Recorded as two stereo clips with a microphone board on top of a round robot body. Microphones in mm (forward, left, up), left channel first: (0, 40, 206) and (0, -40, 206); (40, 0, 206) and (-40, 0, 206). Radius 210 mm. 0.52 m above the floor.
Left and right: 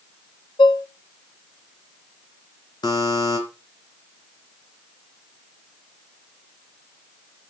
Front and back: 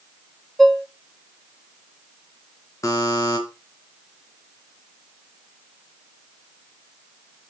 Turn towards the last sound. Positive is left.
turn(degrees=50)